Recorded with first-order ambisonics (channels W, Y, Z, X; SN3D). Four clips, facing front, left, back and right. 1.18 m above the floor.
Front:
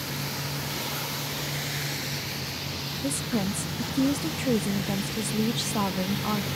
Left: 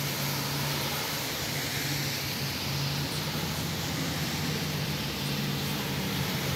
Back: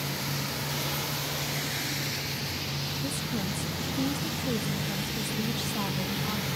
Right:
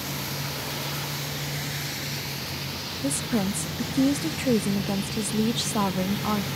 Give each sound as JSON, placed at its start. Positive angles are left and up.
{"t": 3.0, "sound": "a woman speaking", "azimuth_deg": -65}